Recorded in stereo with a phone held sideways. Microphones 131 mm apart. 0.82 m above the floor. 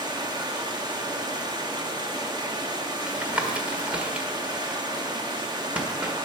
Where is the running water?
35° right (ahead or behind), 1.3 m.